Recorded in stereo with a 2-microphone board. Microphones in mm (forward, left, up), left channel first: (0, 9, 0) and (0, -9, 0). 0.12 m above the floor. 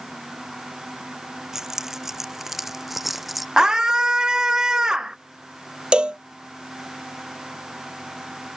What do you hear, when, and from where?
1.5 s keys jangling: 25° right (ahead or behind); by 3.5 s 5° right (ahead or behind)
3.6 s a scream: 35° right (ahead or behind)
5.9 s a cowbell: 65° right (ahead or behind)